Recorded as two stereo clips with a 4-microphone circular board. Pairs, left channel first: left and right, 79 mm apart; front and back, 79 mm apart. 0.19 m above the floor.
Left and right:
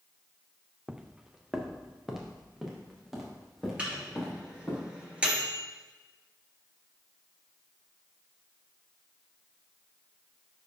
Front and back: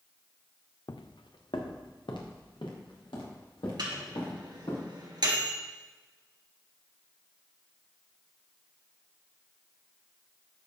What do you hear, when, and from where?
0.9 s footsteps: 10° right, 0.6 m; by 4.8 s 5° right, 5 m
3.8 s a microwave: 165° right, 2.5 m